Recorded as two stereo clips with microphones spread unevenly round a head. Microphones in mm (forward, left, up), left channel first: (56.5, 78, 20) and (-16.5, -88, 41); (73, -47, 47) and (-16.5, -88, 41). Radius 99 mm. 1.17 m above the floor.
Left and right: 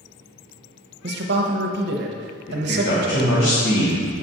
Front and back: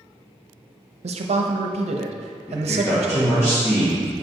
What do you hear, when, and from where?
1.0 s a man speaking: 150° right, 0.8 m
2.5 s a man speaking: 90° left, 1.7 m